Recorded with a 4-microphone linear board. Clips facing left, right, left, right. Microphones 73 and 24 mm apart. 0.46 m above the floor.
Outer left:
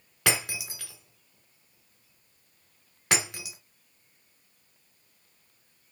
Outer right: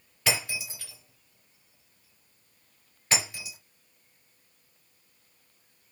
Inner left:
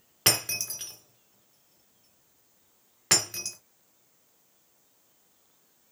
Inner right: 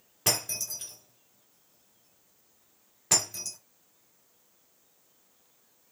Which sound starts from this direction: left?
Breaking glass, at 0.3 s.